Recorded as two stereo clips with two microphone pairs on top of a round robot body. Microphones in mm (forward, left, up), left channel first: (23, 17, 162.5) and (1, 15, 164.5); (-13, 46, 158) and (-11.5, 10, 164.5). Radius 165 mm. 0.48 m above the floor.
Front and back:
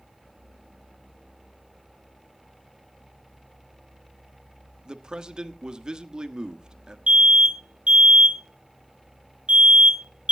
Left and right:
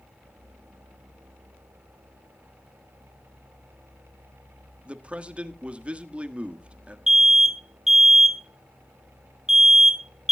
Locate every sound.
4.8 s a man speaking: 140° right, 1.4 m
7.1 s an alarm: 165° right, 2.5 m